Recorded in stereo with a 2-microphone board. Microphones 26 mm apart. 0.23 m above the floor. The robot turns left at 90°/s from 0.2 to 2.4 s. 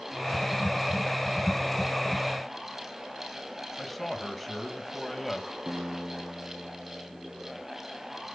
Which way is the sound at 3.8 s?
5° left (ahead or behind).